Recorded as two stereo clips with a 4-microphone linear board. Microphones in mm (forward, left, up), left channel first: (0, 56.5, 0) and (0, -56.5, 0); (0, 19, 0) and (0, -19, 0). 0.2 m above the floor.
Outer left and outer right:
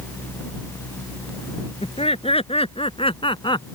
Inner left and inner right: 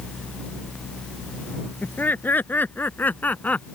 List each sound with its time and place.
1.8 s laughter: 60° left (ahead or behind); by 3.7 s 45° left (ahead or behind)